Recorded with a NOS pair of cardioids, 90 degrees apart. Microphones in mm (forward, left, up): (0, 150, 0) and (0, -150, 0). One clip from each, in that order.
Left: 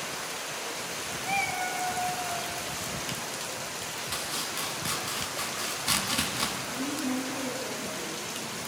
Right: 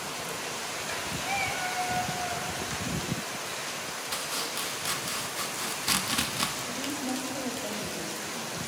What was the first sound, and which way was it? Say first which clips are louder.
A cat meowing: left 2 dB; straight ahead.